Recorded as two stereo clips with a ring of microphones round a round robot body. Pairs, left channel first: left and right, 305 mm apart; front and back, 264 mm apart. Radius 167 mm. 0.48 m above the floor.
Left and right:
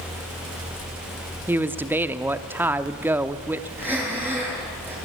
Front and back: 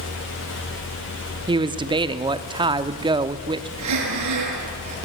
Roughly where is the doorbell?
No doorbell in this recording.